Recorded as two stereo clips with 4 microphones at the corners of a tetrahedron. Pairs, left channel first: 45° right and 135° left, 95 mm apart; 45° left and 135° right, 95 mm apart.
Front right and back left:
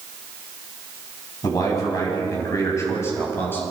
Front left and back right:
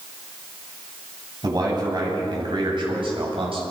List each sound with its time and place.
1.4 s a man speaking: 90° right, 8.5 m; by 3.6 s 115° right, 7 m